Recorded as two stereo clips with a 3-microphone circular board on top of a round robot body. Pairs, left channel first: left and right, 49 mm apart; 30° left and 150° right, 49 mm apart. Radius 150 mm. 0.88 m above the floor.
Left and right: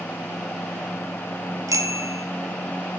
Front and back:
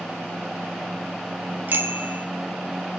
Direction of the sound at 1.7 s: 100° right.